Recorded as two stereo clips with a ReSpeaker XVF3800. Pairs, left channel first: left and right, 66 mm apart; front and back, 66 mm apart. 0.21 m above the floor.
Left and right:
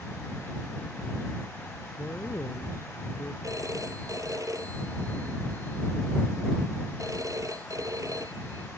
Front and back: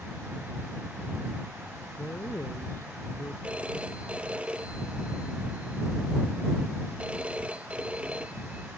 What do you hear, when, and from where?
2.0 s a man speaking: 50° left
3.4 s a phone ringing: 110° right